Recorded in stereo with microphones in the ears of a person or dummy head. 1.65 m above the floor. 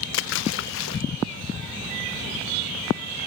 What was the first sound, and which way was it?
A splash, 75° left (ahead or behind).